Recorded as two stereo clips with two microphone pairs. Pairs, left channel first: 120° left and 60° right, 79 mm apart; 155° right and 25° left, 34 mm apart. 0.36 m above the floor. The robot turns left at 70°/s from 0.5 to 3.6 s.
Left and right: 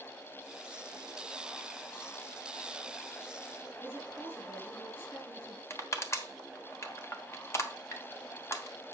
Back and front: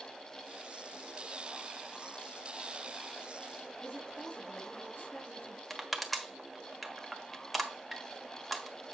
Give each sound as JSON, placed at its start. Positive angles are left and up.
{"t": 3.8, "sound": "a woman speaking", "azimuth_deg": -170, "distance_m": 5.5}
{"t": 5.7, "sound": "crushing", "azimuth_deg": 115, "distance_m": 1.2}